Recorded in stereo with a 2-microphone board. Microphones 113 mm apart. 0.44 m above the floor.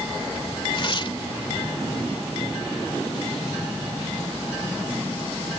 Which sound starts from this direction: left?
Tearing paper, at 0.7 s.